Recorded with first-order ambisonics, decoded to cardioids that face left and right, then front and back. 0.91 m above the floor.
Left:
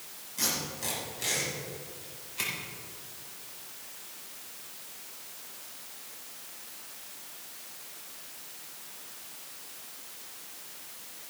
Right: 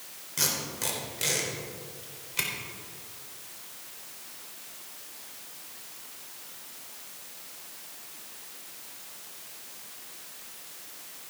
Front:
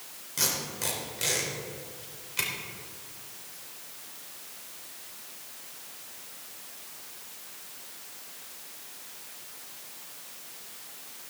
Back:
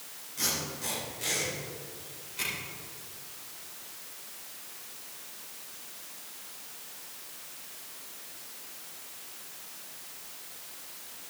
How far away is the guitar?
I don't hear a guitar.